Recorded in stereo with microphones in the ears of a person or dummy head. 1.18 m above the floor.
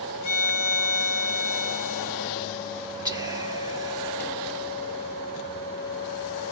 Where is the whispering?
15° right (ahead or behind), 0.9 m.